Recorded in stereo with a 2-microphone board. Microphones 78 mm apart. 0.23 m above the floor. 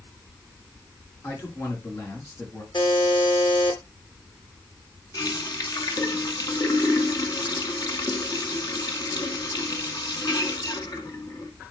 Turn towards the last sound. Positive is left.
turn(degrees=55)  # may be behind; listen again after turning